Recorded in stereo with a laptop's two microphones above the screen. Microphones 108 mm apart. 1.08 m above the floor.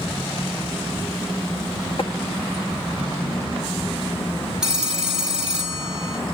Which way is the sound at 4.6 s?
5° right (ahead or behind).